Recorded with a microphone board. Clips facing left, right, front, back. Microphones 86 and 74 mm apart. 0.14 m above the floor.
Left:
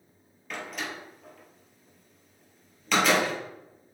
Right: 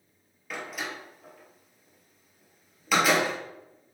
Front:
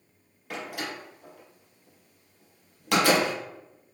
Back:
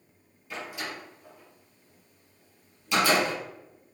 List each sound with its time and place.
0.5 s a door slam: 5° right, 2.5 m